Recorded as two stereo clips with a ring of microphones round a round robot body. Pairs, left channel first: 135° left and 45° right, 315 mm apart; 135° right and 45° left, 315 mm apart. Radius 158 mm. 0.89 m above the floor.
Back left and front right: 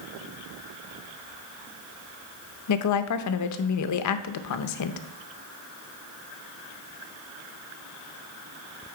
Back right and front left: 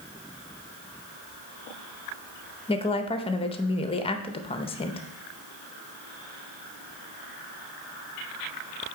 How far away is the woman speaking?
About 0.6 m.